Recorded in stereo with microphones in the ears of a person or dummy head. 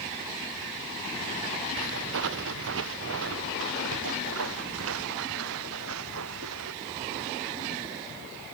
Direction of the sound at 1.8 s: 70° right (ahead or behind).